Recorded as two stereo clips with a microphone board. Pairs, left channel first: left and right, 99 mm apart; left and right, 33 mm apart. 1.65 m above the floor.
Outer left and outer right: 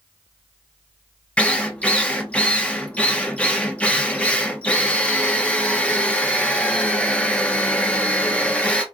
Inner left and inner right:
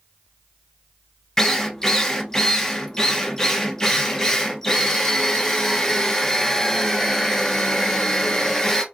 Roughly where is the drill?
Centre.